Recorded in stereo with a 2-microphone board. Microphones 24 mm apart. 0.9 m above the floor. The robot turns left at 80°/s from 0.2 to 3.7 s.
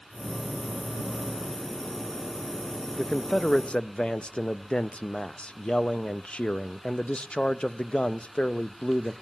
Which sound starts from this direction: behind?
A man speaking, at 3.0 s.